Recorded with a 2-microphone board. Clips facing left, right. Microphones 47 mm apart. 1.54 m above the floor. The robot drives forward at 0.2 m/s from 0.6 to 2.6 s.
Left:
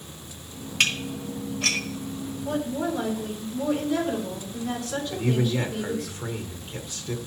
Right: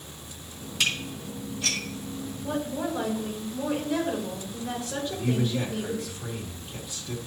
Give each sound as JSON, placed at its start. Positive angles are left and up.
{"t": 0.8, "sound": "dishes clattering", "side_deg": 55, "distance_m": 1.2}
{"t": 2.4, "sound": "a woman speaking", "side_deg": -20, "distance_m": 4.0}
{"t": 5.1, "sound": "a man speaking", "side_deg": 50, "distance_m": 1.1}